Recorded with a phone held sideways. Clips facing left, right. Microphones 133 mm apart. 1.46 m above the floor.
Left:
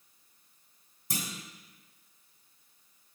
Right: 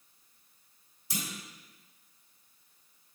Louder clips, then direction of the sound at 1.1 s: Left 1 dB; 50° left (ahead or behind).